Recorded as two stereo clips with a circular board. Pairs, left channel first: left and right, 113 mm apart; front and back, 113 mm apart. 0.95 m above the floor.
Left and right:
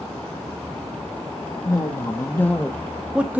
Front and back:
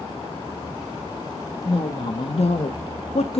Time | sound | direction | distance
1.6 | a woman speaking | 35° left | 1.4 m